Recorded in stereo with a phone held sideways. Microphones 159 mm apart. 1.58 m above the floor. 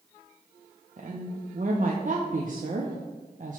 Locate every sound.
1.0 s a woman speaking: 55° right (ahead or behind), 0.5 m